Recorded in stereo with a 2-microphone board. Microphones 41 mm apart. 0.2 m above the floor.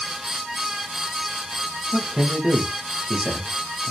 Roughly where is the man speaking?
Right.